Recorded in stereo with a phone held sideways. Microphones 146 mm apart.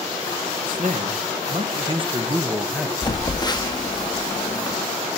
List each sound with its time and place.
0.6 s a man speaking: 65° right (ahead or behind), 1.5 m; by 2.9 s 5° right (ahead or behind), 0.8 m
3.0 s a phone buzzing: 30° left (ahead or behind), 0.7 m